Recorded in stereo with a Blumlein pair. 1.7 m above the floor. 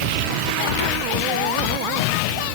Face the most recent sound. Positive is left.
No sound to turn to.